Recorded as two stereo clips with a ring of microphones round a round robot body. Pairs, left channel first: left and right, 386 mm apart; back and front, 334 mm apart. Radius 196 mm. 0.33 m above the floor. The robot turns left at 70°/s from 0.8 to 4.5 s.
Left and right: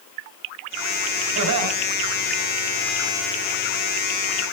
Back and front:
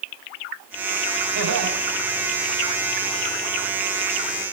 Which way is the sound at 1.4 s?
30° right.